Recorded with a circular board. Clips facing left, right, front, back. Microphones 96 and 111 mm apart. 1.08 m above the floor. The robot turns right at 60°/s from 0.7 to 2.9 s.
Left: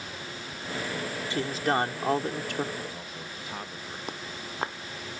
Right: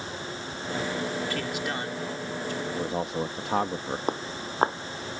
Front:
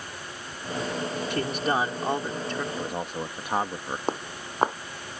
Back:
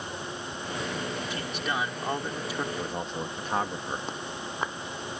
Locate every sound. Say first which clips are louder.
1.3 s a man speaking: left 4 dB, front 9 dB; 25° left; by 2.6 s 105° left
2.8 s a man speaking: right 10 dB, front 1 dB; 85° right; by 4.0 s 80° right
4.1 s footsteps: right 7 dB, front 4 dB; 40° right